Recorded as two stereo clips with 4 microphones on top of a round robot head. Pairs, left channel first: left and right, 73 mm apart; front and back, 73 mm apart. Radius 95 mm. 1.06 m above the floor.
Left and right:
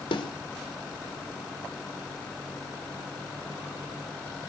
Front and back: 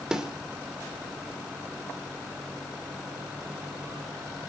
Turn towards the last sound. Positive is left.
turn(degrees=100)